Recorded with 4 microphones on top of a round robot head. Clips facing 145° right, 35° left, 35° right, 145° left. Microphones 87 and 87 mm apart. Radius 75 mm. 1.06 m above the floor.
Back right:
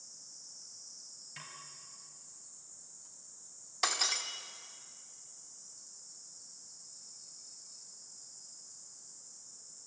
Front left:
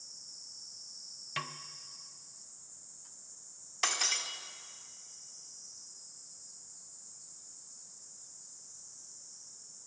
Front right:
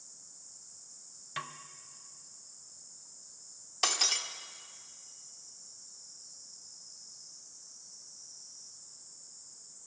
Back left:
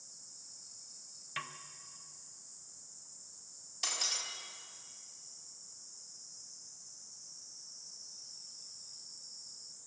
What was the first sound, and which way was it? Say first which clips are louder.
A snare drum: front left 12 dB, front right 3 dB; 40° left.